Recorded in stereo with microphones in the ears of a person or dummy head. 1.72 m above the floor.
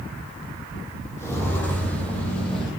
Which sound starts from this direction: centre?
Footsteps, at 1.2 s.